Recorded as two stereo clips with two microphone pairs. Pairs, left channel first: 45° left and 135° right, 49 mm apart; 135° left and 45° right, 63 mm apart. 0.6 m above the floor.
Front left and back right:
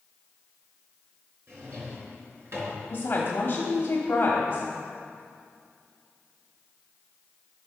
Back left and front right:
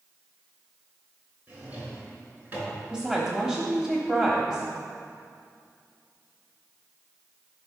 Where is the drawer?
105° right, 3.5 m.